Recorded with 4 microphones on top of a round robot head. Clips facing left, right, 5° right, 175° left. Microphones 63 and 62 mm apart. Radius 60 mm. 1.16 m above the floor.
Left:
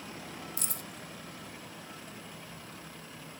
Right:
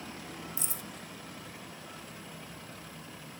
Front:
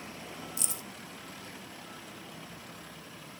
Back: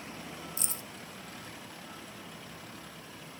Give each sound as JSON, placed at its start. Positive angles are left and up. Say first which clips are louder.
{"t": 0.6, "sound": "keys jangling", "louder": "even, front 1 dB", "azimuth_deg": 120, "distance_m": 0.7}